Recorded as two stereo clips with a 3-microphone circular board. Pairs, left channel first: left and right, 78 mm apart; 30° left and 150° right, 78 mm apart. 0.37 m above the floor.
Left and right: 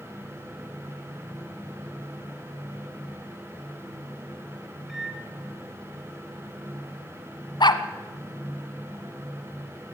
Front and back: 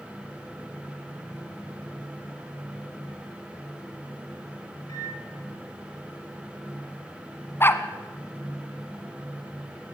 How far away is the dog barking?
About 1.1 m.